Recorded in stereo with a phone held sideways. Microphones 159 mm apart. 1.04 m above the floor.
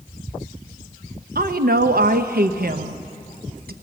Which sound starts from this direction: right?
A woman speaking, at 1.4 s.